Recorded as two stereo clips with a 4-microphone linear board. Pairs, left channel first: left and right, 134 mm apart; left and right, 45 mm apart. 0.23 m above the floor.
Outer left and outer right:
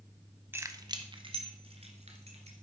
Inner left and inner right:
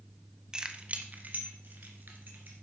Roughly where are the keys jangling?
Centre.